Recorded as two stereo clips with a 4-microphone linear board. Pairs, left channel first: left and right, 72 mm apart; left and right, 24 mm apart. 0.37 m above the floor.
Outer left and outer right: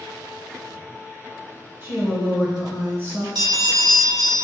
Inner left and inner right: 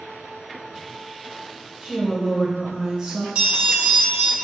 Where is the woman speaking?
35° right (ahead or behind), 1.1 m.